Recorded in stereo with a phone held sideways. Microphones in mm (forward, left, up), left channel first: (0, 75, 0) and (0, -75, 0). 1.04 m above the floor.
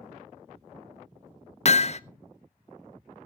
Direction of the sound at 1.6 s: 45° left (ahead or behind).